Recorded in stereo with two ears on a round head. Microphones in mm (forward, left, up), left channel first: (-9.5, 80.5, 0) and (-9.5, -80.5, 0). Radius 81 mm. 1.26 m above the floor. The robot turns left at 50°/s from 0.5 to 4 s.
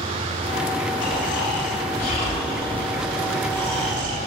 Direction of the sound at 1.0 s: 100° left.